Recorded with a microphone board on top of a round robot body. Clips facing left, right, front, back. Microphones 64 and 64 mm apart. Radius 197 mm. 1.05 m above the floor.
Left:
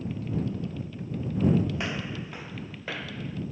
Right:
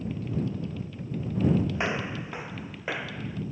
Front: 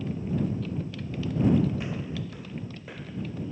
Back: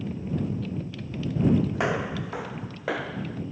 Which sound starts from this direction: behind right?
Footsteps, at 1.8 s.